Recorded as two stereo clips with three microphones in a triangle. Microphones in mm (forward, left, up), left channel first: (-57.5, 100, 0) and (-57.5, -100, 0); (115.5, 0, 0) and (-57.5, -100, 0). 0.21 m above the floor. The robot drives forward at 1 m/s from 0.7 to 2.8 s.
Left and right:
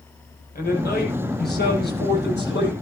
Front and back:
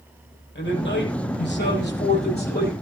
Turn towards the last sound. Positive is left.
turn(degrees=65)